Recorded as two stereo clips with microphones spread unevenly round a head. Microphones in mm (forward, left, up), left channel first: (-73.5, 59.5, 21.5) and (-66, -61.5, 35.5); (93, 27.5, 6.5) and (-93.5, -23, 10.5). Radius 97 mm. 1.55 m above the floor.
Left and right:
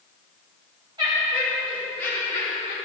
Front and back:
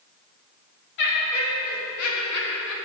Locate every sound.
1.0 s laughter: 20° right, 2.5 m; by 2.8 s 30° left, 2.5 m